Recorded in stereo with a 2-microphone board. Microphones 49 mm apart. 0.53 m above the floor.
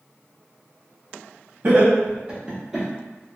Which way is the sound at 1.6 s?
45° right (ahead or behind).